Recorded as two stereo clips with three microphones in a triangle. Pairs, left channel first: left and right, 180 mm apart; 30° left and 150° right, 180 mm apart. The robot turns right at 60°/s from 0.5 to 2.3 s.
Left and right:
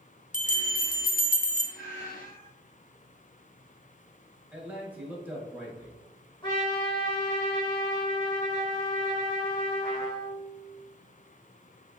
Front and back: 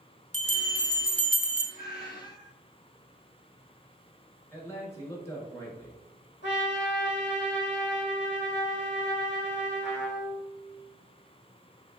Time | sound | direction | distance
0.3 | a bell | 65° left | 0.5 m
1.8 | a cat meowing | straight ahead | 0.9 m
4.5 | a man speaking | 25° right | 1.1 m
6.4 | a trumpet | 30° left | 1.2 m